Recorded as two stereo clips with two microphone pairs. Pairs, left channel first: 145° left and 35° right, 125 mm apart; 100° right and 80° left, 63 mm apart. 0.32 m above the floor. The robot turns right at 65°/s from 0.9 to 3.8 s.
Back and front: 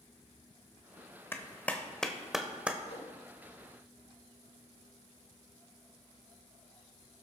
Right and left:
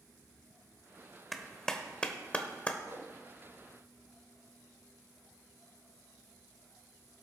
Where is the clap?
175° left, 0.9 m; by 2.8 s 95° right, 0.9 m.